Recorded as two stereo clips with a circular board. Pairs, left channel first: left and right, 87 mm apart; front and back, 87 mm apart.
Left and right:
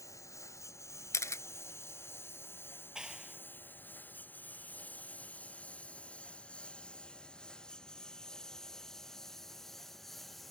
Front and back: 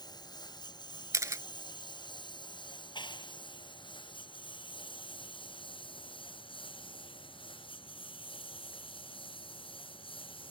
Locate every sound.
0.0 s a lawn mower: 35° left; by 10.5 s straight ahead
1.1 s a camera shutter: 135° left
3.0 s a clap: 10° right